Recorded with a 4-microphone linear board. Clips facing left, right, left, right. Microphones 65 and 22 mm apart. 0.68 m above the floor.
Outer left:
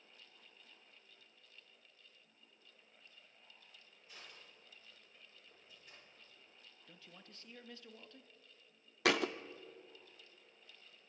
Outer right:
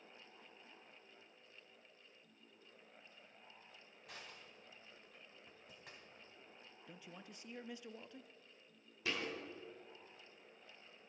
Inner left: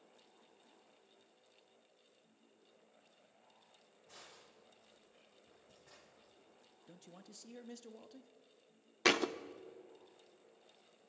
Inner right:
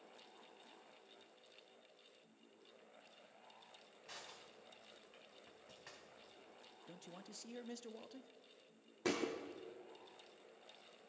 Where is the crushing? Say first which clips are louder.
Outer right 3 dB, inner right 3 dB; 75° right (ahead or behind), 4 m.